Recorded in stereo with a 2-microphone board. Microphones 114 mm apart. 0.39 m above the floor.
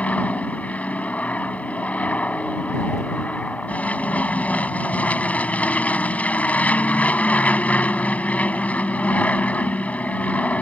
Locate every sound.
0.0 s an aircraft: 10° left (ahead or behind)